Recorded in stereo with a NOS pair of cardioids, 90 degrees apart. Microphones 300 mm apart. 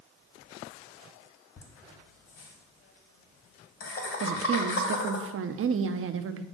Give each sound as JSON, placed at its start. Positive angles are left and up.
{"t": 1.6, "sound": "laughter", "azimuth_deg": 50, "distance_m": 2.0}
{"t": 4.2, "sound": "a woman speaking", "azimuth_deg": -45, "distance_m": 0.7}